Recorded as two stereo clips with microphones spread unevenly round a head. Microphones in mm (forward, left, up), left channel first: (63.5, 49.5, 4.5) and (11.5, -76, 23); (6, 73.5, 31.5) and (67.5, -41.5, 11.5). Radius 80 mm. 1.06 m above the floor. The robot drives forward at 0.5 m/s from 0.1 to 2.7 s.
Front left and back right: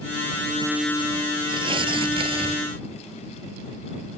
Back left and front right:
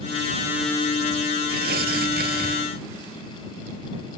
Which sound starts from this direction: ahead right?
Tearing paper, at 1.5 s.